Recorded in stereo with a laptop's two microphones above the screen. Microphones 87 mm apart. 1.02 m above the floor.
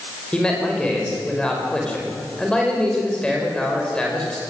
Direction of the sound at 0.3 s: 10° left (ahead or behind).